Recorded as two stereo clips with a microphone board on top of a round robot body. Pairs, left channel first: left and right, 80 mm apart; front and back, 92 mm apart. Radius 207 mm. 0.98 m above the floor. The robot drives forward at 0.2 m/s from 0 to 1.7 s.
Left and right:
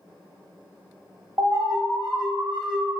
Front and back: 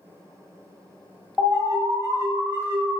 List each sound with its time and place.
1.4 s an alarm: 115° right, 2 m